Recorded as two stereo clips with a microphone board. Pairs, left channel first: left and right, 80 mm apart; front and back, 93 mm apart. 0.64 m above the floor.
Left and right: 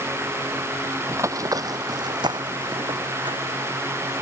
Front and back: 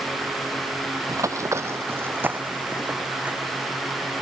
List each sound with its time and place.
1.1 s running footsteps: 140° right; by 3.6 s 105° right